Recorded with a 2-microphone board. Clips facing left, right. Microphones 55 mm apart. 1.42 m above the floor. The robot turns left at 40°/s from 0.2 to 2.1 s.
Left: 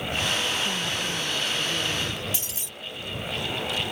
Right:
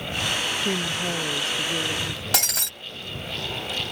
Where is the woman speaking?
110° right; by 2.2 s 170° right.